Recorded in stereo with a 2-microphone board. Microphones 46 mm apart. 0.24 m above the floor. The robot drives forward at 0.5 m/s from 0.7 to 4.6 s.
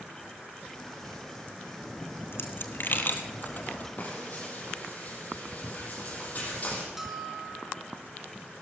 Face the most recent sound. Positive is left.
turn(degrees=-10)  # may be behind; listen again after turning